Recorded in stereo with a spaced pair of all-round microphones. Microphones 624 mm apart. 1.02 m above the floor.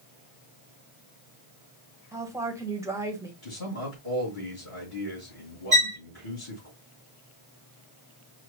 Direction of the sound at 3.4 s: 65° left (ahead or behind).